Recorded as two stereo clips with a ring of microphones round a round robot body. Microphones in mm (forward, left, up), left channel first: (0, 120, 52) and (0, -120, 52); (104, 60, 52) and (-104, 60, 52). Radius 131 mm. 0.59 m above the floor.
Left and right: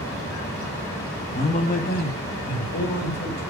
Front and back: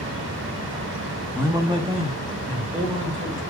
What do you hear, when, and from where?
1.4 s a man speaking: 110° left, 1.1 m; by 3.4 s 130° left, 3.5 m